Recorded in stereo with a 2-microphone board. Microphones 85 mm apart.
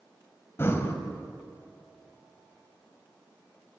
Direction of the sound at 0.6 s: 30° left (ahead or behind).